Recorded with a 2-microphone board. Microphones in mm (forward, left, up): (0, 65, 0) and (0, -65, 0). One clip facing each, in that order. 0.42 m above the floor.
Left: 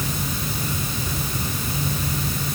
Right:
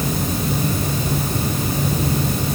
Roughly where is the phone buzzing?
No phone buzzing in this recording.